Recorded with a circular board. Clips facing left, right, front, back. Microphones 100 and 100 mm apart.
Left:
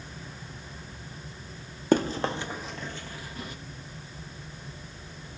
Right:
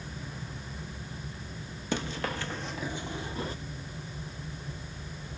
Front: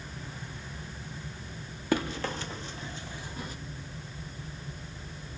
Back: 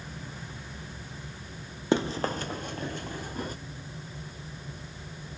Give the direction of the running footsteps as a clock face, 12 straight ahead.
8 o'clock.